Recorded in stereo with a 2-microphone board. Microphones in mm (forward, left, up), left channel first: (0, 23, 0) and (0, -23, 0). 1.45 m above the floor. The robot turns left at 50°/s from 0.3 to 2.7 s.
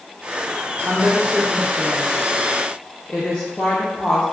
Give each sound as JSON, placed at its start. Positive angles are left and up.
{"t": 0.8, "sound": "a woman speaking", "side_deg": -45, "distance_m": 0.6}